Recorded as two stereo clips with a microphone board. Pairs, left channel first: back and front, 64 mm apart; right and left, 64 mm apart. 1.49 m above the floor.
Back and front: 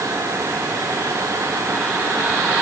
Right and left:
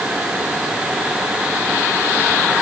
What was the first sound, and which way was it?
Only background noise.